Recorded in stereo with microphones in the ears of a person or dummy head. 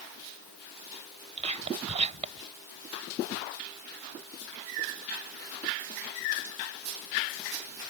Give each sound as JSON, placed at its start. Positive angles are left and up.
{"t": 1.4, "sound": "whispering", "side_deg": -35}